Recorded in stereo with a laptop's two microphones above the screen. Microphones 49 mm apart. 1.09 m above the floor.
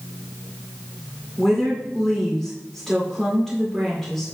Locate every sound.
1.4 s a woman speaking: centre (ahead or behind), 2.5 m